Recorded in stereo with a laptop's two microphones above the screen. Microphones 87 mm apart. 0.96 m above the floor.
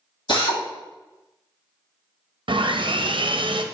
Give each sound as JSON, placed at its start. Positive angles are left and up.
{"t": 0.3, "sound": "a drill", "side_deg": 70, "distance_m": 2.0}
{"t": 2.5, "sound": "sawing", "side_deg": -70, "distance_m": 0.6}